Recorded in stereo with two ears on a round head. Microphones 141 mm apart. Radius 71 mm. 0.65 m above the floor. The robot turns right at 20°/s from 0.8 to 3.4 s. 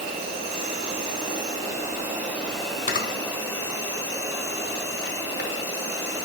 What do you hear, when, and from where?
0.0 s an insect: 40° right, 2 m; by 6.3 s 15° left, 2 m
2.9 s a camera shutter: 55° left (ahead or behind), 0.7 m; by 5.5 s 65° left (ahead or behind), 0.7 m